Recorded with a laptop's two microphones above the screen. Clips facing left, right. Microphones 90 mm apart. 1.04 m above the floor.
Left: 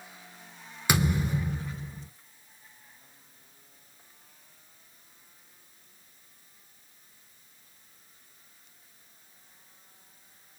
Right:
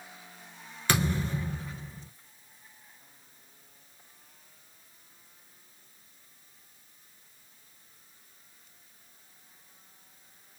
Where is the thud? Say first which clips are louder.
Left 2 dB; 15° left (ahead or behind), 1.0 m.